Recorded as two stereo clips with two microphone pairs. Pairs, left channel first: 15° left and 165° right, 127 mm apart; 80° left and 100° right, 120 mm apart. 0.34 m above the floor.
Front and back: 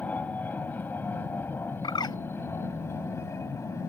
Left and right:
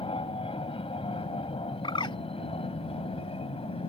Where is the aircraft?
90° left; by 3.9 s 75° left.